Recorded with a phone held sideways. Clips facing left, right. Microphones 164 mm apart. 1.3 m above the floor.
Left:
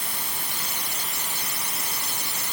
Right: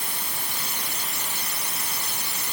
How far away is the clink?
No clink in this recording.